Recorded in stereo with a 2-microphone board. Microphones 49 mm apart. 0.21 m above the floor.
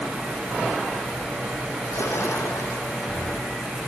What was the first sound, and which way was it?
A splash, 70° left (ahead or behind).